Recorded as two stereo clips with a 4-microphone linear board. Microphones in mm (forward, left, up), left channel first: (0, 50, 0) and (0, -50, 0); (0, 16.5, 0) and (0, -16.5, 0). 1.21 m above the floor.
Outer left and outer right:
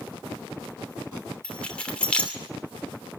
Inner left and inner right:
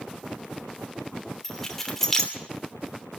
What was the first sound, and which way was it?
Keys jangling, 10° left (ahead or behind).